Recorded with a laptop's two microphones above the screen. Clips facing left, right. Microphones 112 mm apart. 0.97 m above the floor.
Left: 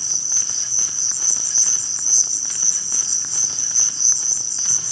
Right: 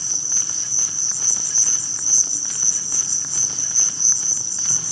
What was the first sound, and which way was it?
An insect, 15° right (ahead or behind).